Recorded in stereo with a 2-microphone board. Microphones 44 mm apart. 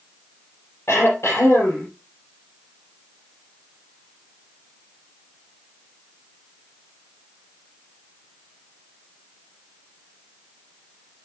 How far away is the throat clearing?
About 5.5 m.